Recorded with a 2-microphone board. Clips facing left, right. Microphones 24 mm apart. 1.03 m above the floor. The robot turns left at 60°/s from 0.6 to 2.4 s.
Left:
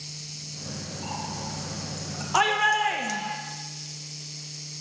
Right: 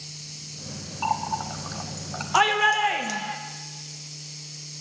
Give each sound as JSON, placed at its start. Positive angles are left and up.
{"t": 1.0, "sound": "a running tap", "side_deg": -70, "distance_m": 1.1}
{"t": 2.3, "sound": "a shout", "side_deg": -10, "distance_m": 0.7}